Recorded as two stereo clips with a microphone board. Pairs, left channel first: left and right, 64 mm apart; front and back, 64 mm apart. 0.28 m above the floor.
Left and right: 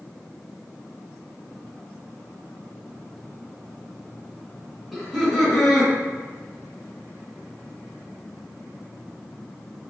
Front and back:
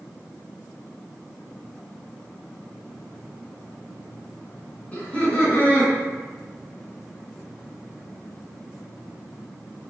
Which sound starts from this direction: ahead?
Laughter, at 4.9 s.